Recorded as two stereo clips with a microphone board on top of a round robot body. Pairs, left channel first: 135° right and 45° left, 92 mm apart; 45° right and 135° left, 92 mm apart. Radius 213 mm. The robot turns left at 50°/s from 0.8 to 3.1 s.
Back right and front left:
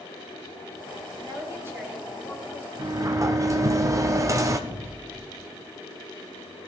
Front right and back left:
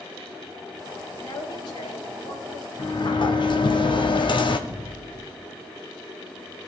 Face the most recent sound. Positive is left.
turn(degrees=-75)